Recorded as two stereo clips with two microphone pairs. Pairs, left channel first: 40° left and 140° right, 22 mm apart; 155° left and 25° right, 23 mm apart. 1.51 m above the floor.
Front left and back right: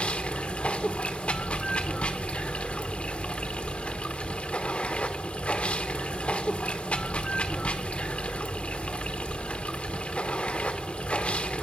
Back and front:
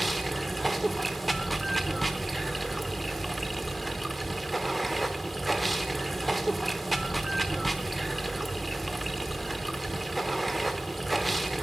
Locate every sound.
0.0 s running water: 65° left, 1.1 m